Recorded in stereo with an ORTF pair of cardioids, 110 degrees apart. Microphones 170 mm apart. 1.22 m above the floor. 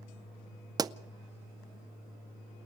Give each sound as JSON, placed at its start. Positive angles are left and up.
{"t": 0.8, "sound": "a pop", "azimuth_deg": -25, "distance_m": 0.6}